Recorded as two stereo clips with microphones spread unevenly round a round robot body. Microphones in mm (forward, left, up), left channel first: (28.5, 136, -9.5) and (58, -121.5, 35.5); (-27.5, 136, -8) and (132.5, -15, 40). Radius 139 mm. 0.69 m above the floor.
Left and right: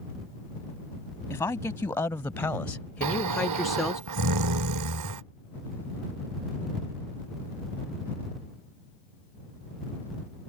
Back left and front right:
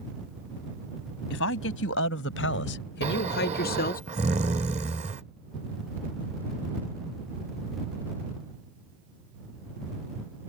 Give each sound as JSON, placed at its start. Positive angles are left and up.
{"t": 1.3, "sound": "a woman speaking", "azimuth_deg": 180}
{"t": 3.0, "sound": "snoring", "azimuth_deg": -110}